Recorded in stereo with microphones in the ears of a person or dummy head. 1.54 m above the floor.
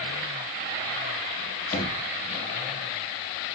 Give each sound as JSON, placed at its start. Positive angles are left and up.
{"t": 1.7, "sound": "knocking", "side_deg": 50, "distance_m": 1.2}